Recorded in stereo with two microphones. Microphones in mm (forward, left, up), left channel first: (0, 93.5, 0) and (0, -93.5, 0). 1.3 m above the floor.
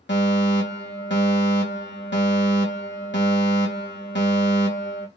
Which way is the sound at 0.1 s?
75° left (ahead or behind).